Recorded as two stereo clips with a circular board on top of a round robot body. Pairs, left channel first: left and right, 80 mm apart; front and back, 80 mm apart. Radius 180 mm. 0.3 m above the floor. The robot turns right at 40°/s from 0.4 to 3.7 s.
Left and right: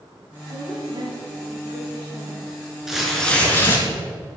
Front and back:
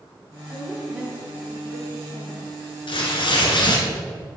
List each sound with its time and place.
0.5 s a woman speaking: 110° right, 4.5 m; by 2.5 s 30° right, 4.5 m
2.9 s tearing paper: 5° right, 3.5 m; by 3.9 s 25° left, 3.5 m